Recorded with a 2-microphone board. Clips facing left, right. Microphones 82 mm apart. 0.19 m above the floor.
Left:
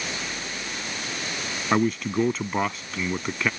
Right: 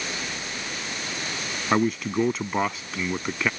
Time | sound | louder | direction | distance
1.7 | a man speaking | even | 5° right (ahead or behind) | ?